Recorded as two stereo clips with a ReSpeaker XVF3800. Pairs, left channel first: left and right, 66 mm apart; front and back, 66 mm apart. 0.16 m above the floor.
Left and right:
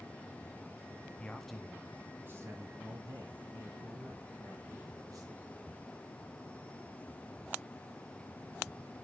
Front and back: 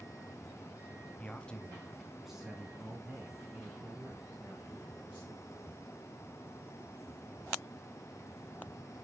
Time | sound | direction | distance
1.2 | a man speaking | 35° left | 1.4 m